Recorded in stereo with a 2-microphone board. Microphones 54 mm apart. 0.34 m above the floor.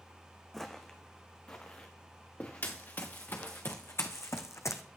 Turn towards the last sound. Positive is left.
turn(degrees=70)  # may be behind; listen again after turning